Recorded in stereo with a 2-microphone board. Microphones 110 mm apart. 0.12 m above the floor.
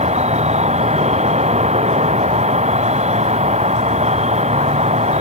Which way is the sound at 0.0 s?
90° right.